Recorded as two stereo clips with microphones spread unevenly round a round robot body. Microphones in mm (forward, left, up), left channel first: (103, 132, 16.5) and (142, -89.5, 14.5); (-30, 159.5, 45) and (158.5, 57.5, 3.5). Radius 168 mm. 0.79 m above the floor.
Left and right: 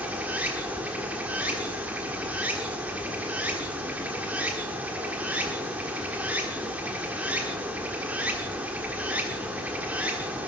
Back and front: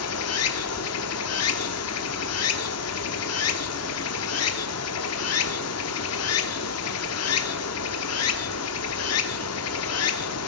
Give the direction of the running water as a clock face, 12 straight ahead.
6 o'clock.